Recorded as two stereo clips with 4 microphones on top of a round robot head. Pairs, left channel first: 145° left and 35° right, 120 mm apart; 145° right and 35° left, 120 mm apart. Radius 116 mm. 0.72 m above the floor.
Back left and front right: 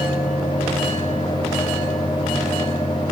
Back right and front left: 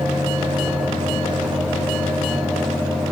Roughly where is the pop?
No pop in this recording.